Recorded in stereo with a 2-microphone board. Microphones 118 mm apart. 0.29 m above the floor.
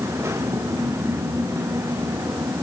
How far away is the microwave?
No microwave in this recording.